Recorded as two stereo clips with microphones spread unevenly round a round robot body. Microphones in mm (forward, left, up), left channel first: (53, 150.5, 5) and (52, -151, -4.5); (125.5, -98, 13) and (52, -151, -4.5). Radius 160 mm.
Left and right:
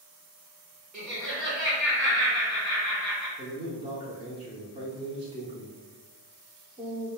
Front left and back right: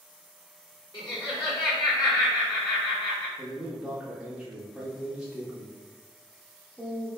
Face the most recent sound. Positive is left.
turn(degrees=-115)